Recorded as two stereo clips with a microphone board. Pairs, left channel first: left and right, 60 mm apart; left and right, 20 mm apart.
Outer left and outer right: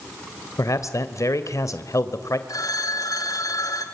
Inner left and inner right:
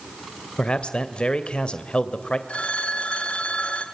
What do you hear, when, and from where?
0.6 s a man speaking: 60° left (ahead or behind), 1.9 m
2.5 s a phone ringing: 75° left (ahead or behind), 3 m